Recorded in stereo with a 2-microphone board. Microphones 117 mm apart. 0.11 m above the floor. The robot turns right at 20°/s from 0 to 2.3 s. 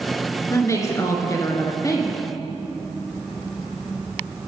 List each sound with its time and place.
0.5 s a woman speaking: 25° left (ahead or behind), 1.2 m; by 2.2 s 30° left (ahead or behind), 1.2 m